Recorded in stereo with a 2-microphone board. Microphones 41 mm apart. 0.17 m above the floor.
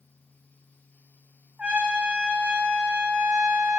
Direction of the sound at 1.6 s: 25° right (ahead or behind).